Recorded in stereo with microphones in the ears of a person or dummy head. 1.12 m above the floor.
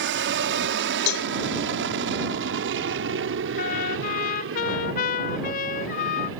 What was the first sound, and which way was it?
An aircraft, 60° right (ahead or behind).